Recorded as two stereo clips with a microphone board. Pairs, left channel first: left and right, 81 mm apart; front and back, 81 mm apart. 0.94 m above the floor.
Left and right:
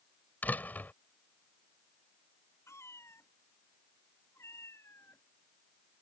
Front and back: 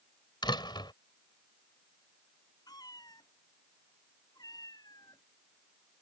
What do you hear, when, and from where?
0.4 s a door slam: 20° left
2.7 s a cat meowing: 35° left